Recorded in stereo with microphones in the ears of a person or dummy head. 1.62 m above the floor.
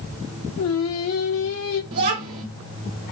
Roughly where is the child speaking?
Right.